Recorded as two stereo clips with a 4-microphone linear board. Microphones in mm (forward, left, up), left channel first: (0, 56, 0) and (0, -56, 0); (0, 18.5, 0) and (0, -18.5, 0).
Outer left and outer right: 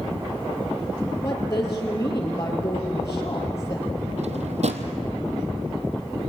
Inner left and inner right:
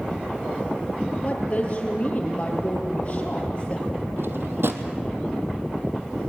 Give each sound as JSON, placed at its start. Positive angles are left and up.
{"t": 1.2, "sound": "a woman speaking", "side_deg": 25, "distance_m": 4.0}
{"t": 4.2, "sound": "a drawer", "side_deg": -80, "distance_m": 1.7}